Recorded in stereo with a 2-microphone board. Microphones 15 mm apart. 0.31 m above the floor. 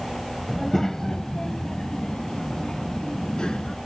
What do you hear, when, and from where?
0.5 s a child speaking: 20° left (ahead or behind); by 3.8 s 75° left (ahead or behind)